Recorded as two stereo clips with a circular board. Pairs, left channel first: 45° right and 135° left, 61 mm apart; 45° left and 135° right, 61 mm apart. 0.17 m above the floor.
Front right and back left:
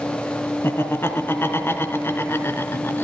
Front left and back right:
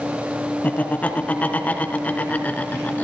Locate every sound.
0.6 s laughter: 10° right, 2.5 m